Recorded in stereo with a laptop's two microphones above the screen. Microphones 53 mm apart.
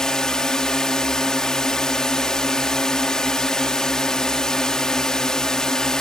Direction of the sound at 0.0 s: 10° left (ahead or behind).